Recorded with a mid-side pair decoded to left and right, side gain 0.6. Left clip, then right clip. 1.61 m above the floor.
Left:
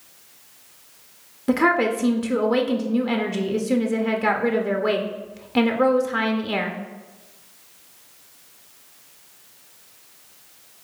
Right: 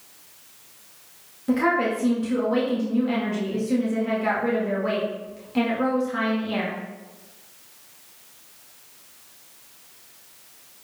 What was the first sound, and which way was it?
A woman speaking, 45° left.